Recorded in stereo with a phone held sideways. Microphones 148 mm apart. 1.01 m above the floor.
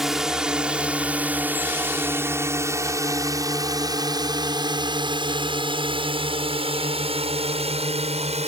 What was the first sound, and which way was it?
A drone, centre (ahead or behind).